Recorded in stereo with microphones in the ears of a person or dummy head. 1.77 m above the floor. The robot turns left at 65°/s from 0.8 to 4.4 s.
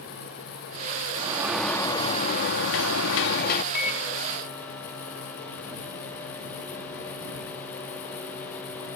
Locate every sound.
1.2 s a sliding door: 155° right; by 3.6 s 45° left
3.7 s a microwave: 55° left; by 9.0 s 10° left